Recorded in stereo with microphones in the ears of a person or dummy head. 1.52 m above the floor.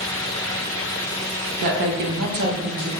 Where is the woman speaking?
45° right (ahead or behind), 0.6 m; by 2.9 s 35° right (ahead or behind), 0.8 m.